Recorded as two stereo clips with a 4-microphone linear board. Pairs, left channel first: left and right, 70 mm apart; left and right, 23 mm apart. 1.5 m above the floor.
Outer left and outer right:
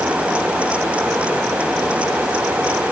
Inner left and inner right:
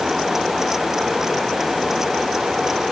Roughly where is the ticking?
I don't hear ticking.